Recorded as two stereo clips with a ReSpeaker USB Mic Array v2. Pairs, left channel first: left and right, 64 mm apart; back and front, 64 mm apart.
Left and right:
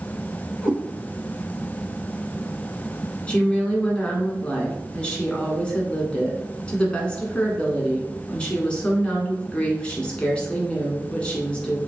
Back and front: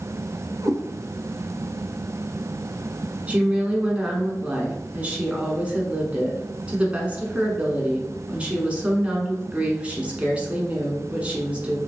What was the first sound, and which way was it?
A cat meowing, 10° right.